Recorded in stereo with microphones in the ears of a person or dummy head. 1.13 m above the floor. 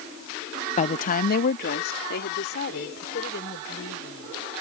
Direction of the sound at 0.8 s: 35° left (ahead or behind).